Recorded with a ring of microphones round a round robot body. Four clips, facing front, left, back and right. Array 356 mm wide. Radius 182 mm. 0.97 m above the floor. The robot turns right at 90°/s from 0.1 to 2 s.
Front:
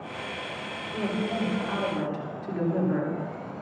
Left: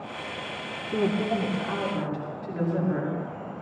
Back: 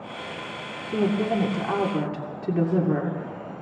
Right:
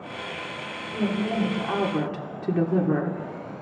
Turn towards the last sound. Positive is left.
turn(degrees=-125)